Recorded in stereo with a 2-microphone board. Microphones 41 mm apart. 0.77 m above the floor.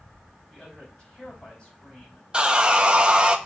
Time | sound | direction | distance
0.5 | a man speaking | 25° left (ahead or behind) | 4 m
2.3 | sawing | 20° right (ahead or behind) | 0.6 m